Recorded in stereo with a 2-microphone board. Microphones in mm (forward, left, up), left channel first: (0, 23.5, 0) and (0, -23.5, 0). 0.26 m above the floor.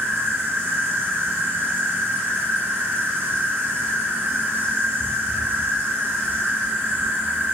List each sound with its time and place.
0.0 s an insect: 45° right (ahead or behind), 1.5 m